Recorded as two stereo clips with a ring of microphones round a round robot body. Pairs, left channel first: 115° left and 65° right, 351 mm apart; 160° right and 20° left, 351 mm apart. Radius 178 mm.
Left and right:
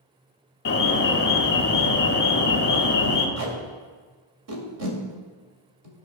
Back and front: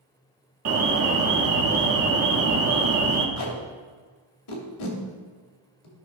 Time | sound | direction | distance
0.7 | an alarm | 60° left | 1.4 m
3.4 | tape being pulled | 115° right | 2 m